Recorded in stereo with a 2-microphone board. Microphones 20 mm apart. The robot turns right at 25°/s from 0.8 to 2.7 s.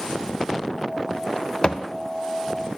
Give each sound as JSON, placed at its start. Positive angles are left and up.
{"t": 1.6, "sound": "a thud", "side_deg": 40, "distance_m": 0.6}